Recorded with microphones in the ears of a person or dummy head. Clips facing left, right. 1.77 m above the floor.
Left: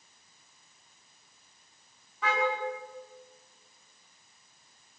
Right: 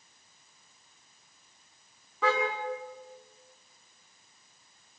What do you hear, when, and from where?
2.2 s a car horn: 75° right (ahead or behind), 7 m